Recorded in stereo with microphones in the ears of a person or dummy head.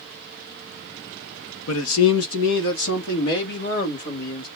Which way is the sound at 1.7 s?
75° left (ahead or behind).